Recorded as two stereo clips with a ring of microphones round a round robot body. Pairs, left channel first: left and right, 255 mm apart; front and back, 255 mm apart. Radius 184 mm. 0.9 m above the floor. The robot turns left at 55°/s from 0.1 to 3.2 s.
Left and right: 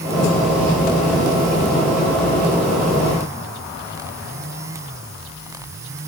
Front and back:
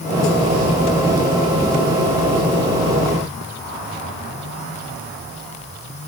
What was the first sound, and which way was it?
Only background noise.